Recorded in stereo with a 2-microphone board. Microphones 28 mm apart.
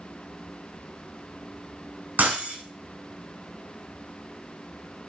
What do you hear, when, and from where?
2.2 s breaking glass: 65° right (ahead or behind), 3.5 m